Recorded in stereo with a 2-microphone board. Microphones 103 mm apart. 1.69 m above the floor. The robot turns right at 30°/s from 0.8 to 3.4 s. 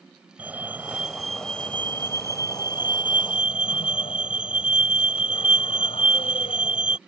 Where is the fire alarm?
15° right; by 7.0 s 65° left.